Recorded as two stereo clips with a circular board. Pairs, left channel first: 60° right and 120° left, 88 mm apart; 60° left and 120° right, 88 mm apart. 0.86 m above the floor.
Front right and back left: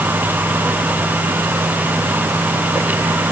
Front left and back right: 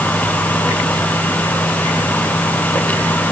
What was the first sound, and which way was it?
Only background noise.